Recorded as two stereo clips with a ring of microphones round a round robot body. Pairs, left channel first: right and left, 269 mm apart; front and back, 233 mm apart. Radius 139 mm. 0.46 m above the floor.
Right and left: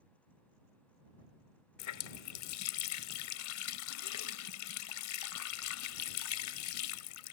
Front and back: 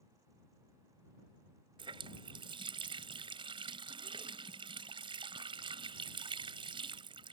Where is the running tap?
110° right.